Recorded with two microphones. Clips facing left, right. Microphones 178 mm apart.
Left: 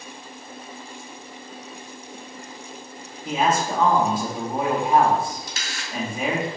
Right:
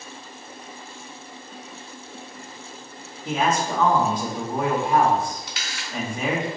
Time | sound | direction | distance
3.2 | a man speaking | 10° left (ahead or behind) | 1.6 m
5.5 | a camera shutter | 45° left (ahead or behind) | 1.0 m